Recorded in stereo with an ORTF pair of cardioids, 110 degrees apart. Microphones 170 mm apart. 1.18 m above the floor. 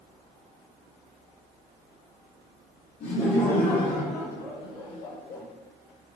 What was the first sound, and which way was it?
Laughter, 60° left.